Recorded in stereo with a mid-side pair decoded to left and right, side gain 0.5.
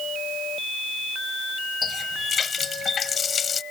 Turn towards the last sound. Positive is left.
turn(degrees=40)